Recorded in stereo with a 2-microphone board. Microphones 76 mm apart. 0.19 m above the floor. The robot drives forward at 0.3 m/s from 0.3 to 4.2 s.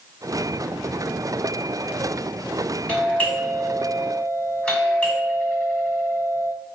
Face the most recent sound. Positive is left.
turn(degrees=15)  # may be behind; listen again after turning